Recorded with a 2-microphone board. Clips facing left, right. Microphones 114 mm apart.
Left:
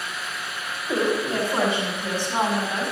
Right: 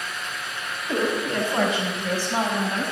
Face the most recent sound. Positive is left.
turn(degrees=25)  # may be behind; listen again after turning